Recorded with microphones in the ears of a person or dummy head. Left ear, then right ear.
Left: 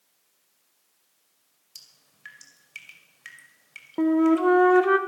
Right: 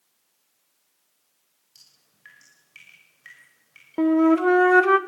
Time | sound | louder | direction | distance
1.8 | dripping | left 6 dB | 25° left (ahead or behind) | 5.5 m
4.0 | a flute | right 2 dB | 25° right (ahead or behind) | 0.8 m